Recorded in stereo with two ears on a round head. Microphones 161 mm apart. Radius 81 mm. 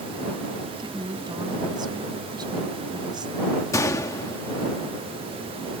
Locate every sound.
0.8 s a woman speaking: 25° right (ahead or behind)
3.7 s a gunshot: 15° left (ahead or behind)